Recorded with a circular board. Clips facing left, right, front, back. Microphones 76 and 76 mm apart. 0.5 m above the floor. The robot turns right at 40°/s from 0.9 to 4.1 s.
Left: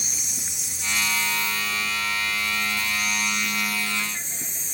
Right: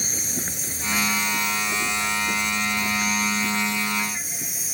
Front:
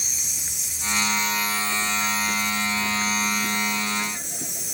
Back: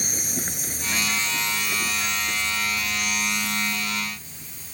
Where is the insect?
135° right; by 4.7 s 10° right.